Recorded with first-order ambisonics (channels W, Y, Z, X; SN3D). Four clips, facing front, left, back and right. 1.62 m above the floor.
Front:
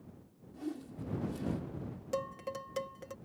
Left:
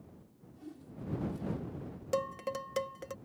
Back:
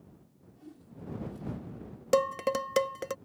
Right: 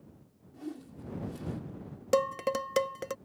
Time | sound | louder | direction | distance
0.5 | a whoosh | right 6 dB, front 9 dB | 40° right | ?
2.1 | dishes clattering | right 7 dB, back 12 dB | 145° right | ?